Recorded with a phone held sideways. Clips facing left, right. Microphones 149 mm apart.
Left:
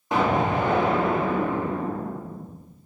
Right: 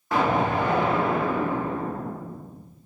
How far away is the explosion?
About 0.6 m.